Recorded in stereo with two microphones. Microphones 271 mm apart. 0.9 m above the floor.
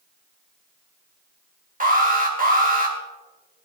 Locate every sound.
1.8 s an alarm: 30° right (ahead or behind), 3 m